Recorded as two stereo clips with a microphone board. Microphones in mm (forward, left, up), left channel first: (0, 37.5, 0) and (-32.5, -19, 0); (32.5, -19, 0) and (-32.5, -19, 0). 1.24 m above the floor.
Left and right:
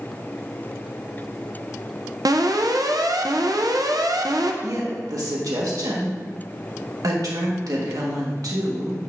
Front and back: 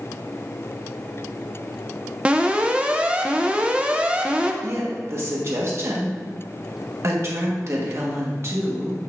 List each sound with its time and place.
2.2 s an alarm: 110° right, 0.6 m
4.6 s a woman speaking: 140° right, 1.4 m